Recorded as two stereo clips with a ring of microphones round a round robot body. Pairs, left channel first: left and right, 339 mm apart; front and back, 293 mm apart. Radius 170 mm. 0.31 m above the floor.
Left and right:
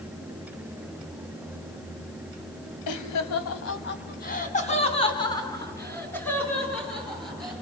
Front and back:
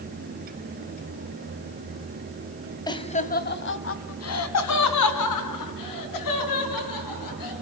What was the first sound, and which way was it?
Laughter, 75° left.